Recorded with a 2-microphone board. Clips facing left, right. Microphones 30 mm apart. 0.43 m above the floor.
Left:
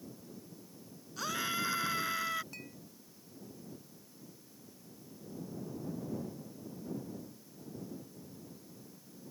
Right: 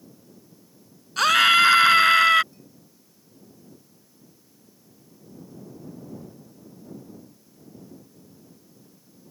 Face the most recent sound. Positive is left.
turn(degrees=75)  # may be behind; listen again after turning